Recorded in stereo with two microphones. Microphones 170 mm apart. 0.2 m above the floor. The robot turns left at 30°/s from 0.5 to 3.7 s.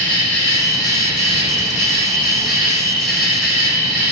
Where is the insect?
165° left, 1.4 m; by 4.1 s 70° left, 1.4 m.